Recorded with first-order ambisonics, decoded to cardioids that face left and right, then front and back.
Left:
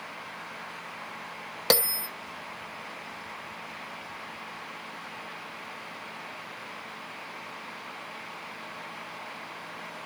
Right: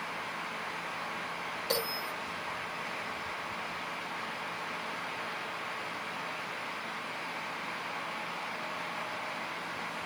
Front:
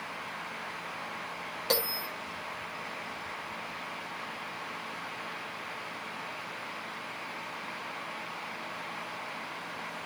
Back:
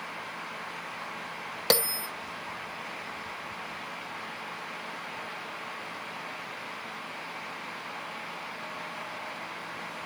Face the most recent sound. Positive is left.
turn(degrees=125)